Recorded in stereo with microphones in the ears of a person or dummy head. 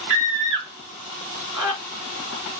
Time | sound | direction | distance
0.1 | a scream | centre (ahead or behind) | 4 m